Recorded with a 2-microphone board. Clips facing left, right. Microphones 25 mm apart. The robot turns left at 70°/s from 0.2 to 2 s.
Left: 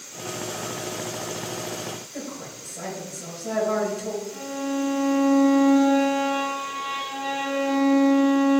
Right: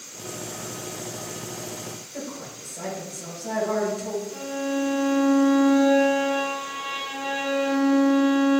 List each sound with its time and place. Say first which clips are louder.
2.1 s a woman speaking: even; centre (ahead or behind), 1.8 m
4.3 s a violin: right 1 dB; 10° right (ahead or behind), 1.8 m